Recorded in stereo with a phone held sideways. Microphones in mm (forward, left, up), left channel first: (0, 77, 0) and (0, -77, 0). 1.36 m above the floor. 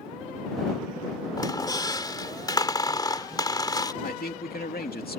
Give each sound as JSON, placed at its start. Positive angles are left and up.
{"t": 1.4, "sound": "a squeak", "side_deg": 25}
{"t": 4.0, "sound": "a man speaking", "side_deg": 80}